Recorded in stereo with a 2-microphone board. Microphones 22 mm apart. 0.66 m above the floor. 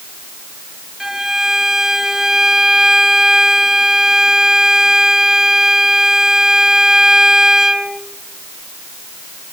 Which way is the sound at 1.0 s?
20° right (ahead or behind).